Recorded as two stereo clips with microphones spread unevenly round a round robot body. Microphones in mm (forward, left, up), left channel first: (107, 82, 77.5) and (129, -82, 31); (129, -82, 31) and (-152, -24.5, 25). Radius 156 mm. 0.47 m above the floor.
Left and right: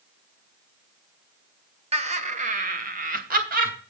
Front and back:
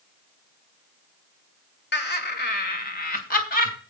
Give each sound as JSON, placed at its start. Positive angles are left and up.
{"t": 1.9, "sound": "laughter", "azimuth_deg": -60, "distance_m": 1.9}